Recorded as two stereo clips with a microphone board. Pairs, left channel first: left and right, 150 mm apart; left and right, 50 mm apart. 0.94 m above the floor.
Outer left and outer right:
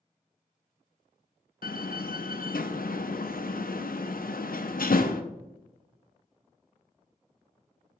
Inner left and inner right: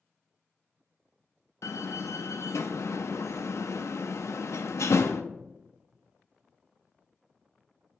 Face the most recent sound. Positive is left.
turn(degrees=70)  # may be behind; listen again after turning